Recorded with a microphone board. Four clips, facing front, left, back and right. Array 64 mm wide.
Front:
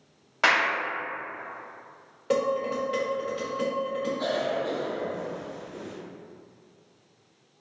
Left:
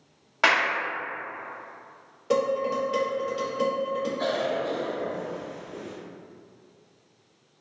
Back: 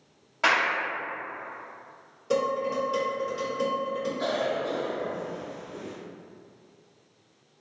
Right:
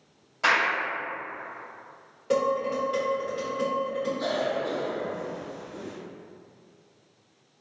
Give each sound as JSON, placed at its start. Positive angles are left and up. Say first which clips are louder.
{"t": 0.4, "sound": "a clap", "louder": "left 1 dB, front 1 dB", "azimuth_deg": 55, "distance_m": 0.9}
{"t": 2.3, "sound": "dishes clattering", "louder": "left 1 dB, even", "azimuth_deg": 0, "distance_m": 1.2}
{"t": 4.2, "sound": "a cough", "louder": "left 1 dB, back 1 dB", "azimuth_deg": 95, "distance_m": 0.8}